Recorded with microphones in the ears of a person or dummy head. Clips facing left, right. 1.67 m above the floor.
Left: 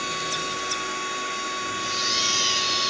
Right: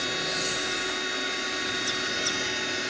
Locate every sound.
0.0 s a machine running: 15° right (ahead or behind), 2.5 m